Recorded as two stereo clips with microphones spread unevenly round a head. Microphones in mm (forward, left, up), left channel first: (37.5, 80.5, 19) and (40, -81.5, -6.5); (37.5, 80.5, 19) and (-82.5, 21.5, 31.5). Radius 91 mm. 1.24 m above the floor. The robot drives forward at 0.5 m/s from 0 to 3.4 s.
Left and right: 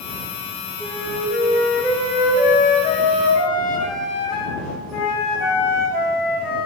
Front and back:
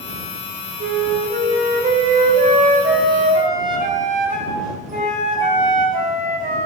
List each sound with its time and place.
0.8 s a flute: 175° left, 1.6 m; by 6.7 s straight behind, 3 m